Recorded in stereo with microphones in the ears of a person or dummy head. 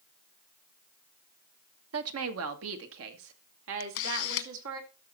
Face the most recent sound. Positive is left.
turn(degrees=70)  # may be behind; listen again after turning